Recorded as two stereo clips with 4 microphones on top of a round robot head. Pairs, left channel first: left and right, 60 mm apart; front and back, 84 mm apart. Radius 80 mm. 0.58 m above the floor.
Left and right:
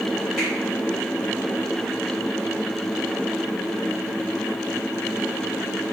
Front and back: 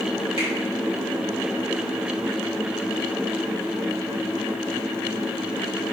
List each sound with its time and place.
0.4 s a finger snap: 175° right, 1.6 m